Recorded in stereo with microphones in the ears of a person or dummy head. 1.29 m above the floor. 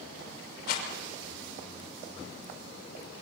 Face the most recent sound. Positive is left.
turn(degrees=65)  # may be behind; listen again after turning